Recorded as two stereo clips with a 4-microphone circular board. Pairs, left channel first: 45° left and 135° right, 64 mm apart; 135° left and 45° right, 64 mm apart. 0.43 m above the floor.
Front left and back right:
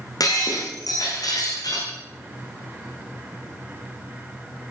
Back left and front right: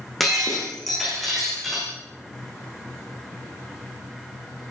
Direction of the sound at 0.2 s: 45° left.